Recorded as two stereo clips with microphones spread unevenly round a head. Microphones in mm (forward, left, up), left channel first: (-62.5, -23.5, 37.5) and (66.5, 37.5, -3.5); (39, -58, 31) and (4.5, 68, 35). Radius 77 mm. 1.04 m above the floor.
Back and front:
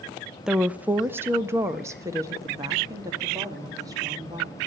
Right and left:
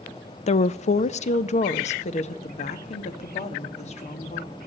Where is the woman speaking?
50° right, 0.5 m; by 4.5 s 40° right, 2.5 m.